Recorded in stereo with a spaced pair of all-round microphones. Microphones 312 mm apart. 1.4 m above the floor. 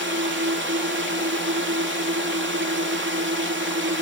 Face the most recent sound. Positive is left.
turn(degrees=-40)  # may be behind; listen again after turning